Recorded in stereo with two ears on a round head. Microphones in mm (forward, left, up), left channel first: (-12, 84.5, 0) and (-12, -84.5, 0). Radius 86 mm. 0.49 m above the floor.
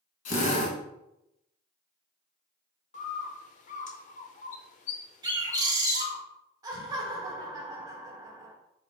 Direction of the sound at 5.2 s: 20° right (ahead or behind).